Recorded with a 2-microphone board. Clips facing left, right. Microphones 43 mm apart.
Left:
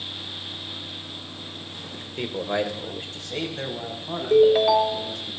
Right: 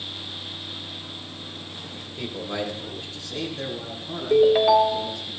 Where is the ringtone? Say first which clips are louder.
Even; 5° right (ahead or behind), 0.6 m.